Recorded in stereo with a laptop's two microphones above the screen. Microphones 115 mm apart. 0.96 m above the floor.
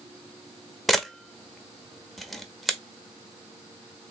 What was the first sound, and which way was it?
A camera shutter, centre (ahead or behind).